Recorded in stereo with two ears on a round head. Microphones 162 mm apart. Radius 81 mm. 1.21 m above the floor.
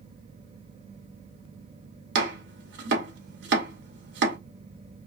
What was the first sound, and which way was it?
Chopping, 65° right (ahead or behind).